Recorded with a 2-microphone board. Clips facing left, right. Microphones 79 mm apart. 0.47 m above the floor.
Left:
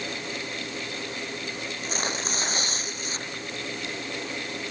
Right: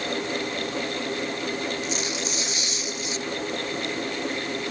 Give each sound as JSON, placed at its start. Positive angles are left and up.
{"t": 1.8, "sound": "tearing paper", "side_deg": 40}